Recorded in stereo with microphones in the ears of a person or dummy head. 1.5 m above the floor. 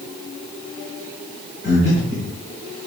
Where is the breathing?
30° left (ahead or behind), 2.5 m.